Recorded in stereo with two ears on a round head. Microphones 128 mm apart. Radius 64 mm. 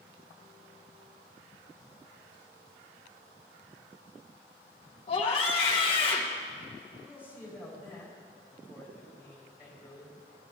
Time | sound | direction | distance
5.1 | a scream | 40° left (ahead or behind) | 1.0 m
7.0 | a man speaking | 10° right (ahead or behind) | 4.5 m